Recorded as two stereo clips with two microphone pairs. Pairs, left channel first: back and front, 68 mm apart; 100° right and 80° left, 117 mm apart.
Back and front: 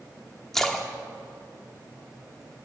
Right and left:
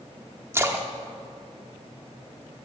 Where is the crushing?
I don't hear crushing.